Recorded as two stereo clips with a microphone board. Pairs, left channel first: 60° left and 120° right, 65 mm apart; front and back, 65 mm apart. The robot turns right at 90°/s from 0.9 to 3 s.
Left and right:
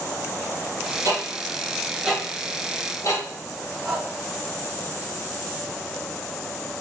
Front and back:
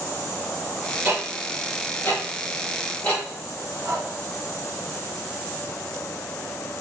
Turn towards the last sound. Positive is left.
turn(degrees=165)